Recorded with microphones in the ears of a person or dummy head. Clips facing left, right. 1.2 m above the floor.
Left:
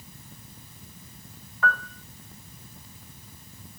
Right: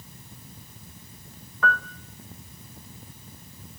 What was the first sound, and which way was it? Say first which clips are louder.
A piano: right 1 dB; 70° right (ahead or behind).